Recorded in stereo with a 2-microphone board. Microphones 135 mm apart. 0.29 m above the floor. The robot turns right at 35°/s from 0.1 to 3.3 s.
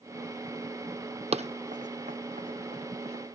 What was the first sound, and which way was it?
Running footsteps, 50° right (ahead or behind).